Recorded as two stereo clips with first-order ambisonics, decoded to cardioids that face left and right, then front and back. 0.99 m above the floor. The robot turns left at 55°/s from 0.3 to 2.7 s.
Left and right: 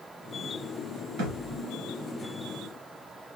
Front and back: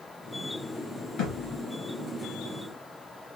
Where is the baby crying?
No baby crying in this recording.